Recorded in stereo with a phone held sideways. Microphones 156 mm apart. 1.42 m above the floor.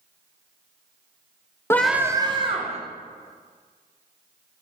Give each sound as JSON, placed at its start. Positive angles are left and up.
{"t": 1.7, "sound": "a scream", "side_deg": 15, "distance_m": 0.5}